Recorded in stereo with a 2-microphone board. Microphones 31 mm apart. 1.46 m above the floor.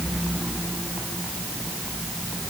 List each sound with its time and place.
Only background noise.